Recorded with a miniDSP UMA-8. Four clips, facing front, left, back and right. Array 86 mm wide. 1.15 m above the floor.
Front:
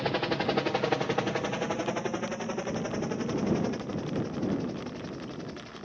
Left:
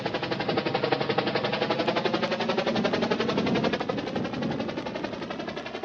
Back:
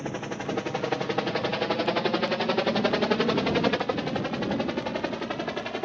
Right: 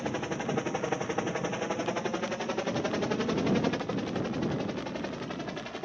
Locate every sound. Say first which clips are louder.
0.0 s a helicopter: left 4 dB, front 4 dB; 40° left; by 5.9 s 165° left